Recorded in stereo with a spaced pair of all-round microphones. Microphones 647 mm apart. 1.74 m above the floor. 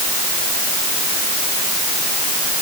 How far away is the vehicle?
No vehicle in this recording.